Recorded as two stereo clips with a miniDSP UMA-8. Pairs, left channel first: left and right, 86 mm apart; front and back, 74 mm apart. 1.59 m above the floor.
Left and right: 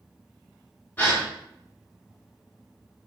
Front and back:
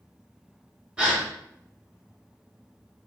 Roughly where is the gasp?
Behind left.